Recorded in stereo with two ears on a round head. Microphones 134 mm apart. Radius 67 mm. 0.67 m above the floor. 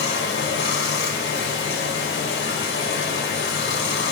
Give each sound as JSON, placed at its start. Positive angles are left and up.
{"t": 0.0, "sound": "running water", "side_deg": 75, "distance_m": 0.8}